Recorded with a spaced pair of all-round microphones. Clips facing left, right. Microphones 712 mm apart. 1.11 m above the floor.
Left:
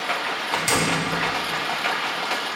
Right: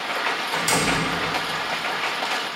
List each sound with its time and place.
0.5 s a door slam: 50° left (ahead or behind), 3.5 m